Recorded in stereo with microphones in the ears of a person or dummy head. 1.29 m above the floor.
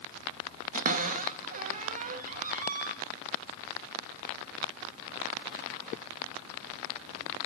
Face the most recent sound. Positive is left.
turn(degrees=-50)  # may be behind; listen again after turning